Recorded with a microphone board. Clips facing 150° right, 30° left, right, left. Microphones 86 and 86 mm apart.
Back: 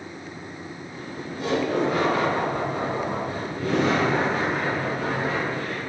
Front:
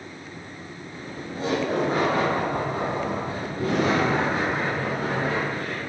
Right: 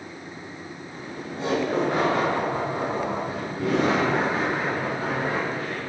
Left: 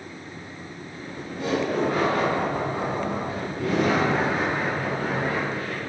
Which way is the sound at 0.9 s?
30° right.